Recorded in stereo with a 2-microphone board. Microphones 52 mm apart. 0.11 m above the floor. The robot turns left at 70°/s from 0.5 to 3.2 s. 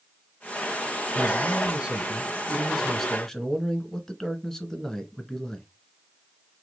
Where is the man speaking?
15° right (ahead or behind), 1.0 m; by 5.7 s 10° left (ahead or behind), 1.0 m.